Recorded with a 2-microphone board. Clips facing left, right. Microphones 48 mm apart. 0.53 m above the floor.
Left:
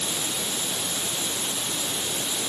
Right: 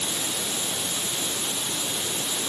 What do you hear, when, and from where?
Only background noise.